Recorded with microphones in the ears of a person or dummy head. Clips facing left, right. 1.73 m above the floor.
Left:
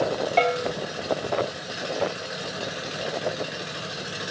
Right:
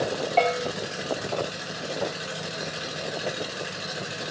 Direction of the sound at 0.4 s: 20° left (ahead or behind).